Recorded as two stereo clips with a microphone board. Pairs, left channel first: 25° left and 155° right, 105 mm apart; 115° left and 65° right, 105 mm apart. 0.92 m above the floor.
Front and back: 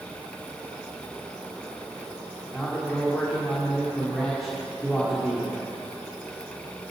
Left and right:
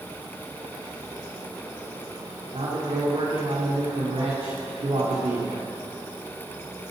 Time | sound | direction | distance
2.5 | a man speaking | 65° right | 2.5 m